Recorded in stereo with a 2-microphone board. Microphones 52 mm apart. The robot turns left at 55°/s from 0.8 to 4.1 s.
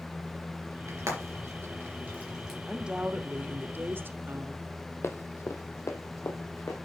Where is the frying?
85° right, 3.5 m; by 2.6 s 5° right (ahead or behind), 3.5 m.